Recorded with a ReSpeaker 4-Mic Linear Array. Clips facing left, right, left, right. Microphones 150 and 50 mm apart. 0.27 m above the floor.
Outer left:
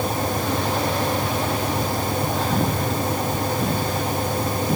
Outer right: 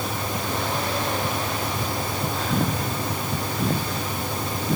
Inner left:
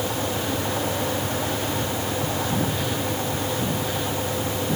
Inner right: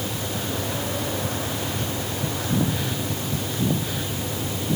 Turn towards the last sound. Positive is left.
No sound to turn to.